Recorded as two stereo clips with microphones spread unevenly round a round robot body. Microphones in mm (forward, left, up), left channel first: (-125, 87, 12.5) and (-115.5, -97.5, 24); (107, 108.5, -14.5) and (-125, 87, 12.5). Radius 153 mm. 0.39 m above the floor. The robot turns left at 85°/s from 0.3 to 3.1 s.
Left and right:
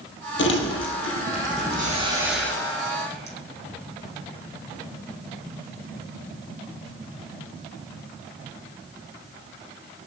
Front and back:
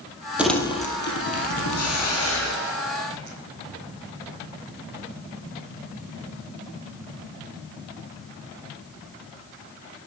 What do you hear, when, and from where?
0.4 s crumpling: 100° left, 2.5 m; by 2.5 s 75° right, 2.5 m
1.8 s a hiss: 10° left, 3 m; by 3.4 s 105° right, 3 m